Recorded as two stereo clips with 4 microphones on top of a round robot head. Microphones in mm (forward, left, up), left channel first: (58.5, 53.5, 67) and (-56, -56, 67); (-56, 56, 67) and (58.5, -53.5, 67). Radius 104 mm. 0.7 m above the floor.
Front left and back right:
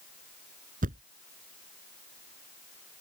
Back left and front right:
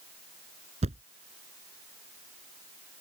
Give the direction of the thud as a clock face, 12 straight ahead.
3 o'clock.